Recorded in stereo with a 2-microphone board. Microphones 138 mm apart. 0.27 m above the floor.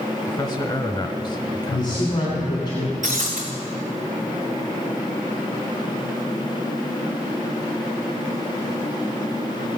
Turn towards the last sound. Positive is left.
turn(degrees=-60)  # may be behind; listen again after turning